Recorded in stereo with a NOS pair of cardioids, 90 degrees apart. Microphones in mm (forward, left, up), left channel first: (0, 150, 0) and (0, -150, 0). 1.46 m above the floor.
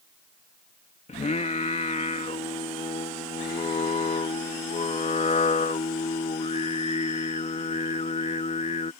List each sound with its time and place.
1.1 s singing: 25° left